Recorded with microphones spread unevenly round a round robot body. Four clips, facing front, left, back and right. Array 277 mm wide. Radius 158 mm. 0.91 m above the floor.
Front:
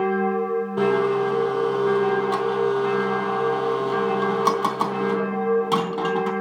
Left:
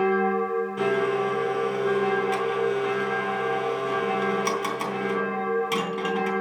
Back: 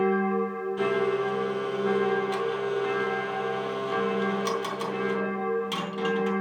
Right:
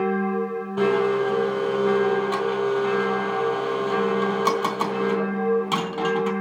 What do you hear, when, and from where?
0.8 s a blender: 20° right, 3 m